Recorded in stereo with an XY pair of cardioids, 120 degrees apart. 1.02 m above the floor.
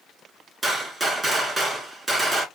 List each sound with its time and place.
0.6 s a gunshot: 20° right, 1.6 m